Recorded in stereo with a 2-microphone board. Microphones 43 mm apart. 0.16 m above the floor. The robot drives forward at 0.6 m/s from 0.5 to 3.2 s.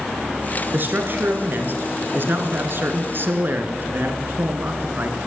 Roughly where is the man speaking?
Right.